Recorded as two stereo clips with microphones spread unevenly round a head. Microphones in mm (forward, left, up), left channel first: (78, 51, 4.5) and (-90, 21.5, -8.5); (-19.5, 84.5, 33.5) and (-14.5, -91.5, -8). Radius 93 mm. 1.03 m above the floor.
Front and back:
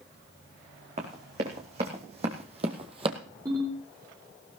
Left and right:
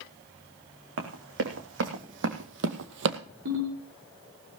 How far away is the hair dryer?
I don't hear a hair dryer.